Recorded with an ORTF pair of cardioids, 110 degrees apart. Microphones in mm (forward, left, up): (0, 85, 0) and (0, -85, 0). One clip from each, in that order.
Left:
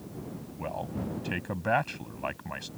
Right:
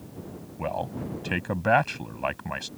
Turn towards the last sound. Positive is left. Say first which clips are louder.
# right 5 dB
turn(degrees=-30)